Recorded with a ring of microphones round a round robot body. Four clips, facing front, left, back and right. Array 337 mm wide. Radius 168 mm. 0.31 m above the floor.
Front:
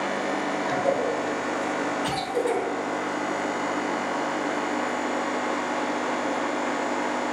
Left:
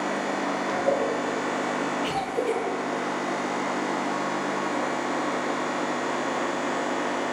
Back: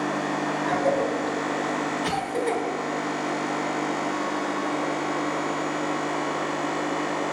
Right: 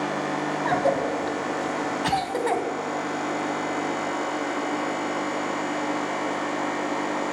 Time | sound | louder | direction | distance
0.7 | a cough | right 2 dB, back 1 dB | 95° right | 2.5 m